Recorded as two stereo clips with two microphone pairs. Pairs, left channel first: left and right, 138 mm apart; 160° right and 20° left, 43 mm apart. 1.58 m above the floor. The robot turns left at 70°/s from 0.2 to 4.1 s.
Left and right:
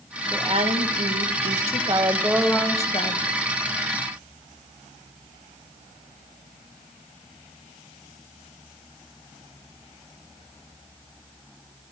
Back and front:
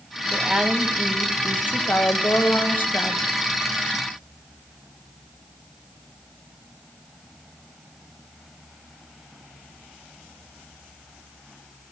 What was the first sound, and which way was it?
A woman speaking, 30° right.